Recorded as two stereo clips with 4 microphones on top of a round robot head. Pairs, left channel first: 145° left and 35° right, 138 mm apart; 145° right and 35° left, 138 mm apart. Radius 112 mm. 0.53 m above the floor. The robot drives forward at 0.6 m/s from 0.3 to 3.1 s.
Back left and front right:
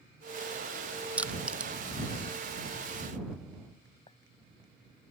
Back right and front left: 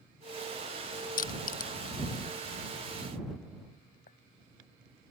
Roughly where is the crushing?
Behind right.